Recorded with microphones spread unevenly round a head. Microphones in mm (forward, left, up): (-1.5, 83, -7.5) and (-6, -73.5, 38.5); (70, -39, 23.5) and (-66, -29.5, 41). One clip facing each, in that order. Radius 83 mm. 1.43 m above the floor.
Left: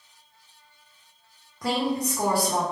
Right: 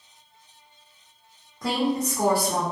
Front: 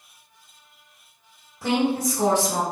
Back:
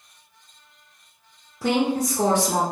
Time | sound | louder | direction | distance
1.6 | a woman speaking | right 1 dB, back 1 dB | 175° left | 0.7 m